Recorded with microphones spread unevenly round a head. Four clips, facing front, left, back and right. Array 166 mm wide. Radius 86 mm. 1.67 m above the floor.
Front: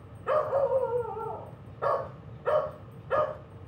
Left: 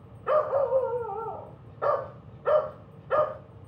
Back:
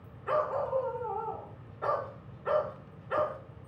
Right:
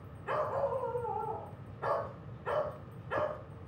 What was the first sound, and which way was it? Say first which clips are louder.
A dog barking: left 9 dB, front 4 dB; 55° left.